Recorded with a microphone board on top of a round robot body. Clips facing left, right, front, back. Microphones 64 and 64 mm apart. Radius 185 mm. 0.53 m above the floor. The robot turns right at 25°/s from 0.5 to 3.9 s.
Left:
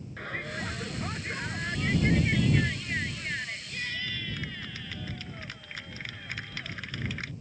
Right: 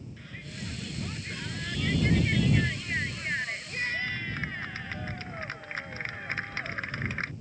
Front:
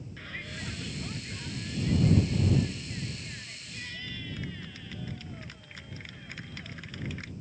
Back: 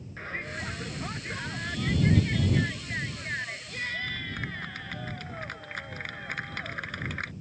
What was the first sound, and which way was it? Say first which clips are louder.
A shout: left 10 dB, back 6 dB; 125° left.